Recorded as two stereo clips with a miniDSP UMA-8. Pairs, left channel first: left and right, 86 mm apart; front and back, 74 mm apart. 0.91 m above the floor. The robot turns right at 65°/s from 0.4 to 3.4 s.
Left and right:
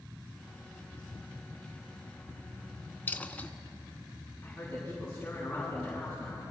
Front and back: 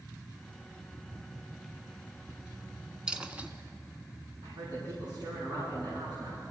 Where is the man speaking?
170° left, 6.5 m.